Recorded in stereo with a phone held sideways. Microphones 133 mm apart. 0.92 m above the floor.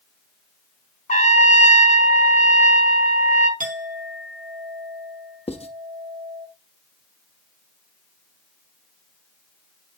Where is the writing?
50° left (ahead or behind), 0.7 m.